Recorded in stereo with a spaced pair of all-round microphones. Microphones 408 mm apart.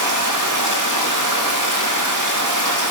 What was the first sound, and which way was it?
Running water, 45° right (ahead or behind).